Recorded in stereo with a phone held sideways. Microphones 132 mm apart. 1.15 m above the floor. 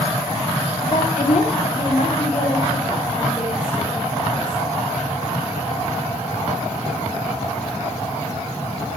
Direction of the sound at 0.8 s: 80° left.